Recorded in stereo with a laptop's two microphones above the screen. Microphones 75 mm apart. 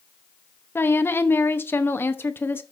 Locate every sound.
0.8 s a woman speaking: 30° left (ahead or behind), 0.8 m